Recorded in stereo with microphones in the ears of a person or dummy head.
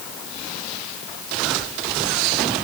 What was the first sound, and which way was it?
Only background noise.